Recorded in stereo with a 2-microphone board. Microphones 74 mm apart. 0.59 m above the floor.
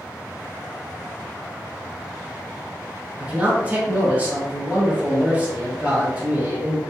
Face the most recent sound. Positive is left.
turn(degrees=-20)  # may be behind; listen again after turning